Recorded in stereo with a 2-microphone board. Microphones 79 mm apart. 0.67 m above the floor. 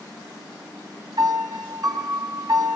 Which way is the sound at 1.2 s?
60° right (ahead or behind).